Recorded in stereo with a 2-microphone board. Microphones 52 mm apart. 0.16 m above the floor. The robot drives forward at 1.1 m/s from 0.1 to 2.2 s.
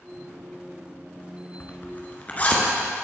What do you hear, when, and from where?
1.6 s a zipper: 40° left (ahead or behind), 1.4 m; by 2.9 s 30° left (ahead or behind), 1.7 m